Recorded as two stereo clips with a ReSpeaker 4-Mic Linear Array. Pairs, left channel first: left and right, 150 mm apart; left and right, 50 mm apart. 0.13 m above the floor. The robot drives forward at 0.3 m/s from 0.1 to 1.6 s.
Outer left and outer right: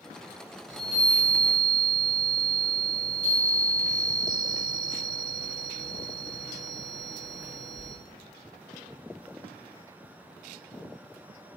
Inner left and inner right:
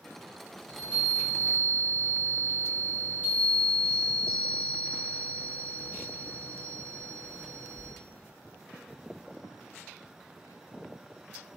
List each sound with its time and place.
0.7 s a chime: 30° left (ahead or behind), 1.3 m; by 7.9 s 25° left (ahead or behind), 1.4 m